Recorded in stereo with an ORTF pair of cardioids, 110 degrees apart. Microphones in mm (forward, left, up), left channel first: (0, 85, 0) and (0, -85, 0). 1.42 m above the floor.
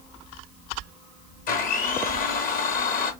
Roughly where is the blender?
Ahead left.